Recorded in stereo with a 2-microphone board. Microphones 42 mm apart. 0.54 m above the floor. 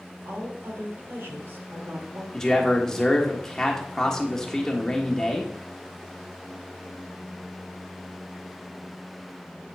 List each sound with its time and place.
0.2 s a woman speaking: 70° right (ahead or behind), 2 m
2.3 s a man speaking: 15° left (ahead or behind), 1.4 m